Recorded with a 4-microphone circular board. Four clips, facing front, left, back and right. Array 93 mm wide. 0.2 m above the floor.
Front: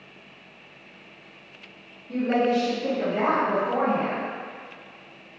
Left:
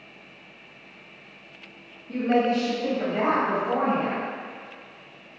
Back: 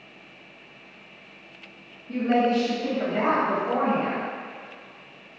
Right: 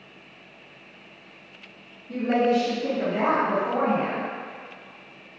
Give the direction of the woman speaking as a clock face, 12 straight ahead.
7 o'clock.